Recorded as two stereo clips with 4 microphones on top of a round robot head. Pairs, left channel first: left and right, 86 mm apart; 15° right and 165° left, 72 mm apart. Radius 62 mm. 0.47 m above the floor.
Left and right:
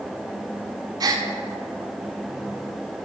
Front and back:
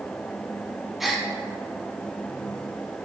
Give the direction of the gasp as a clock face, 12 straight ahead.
4 o'clock.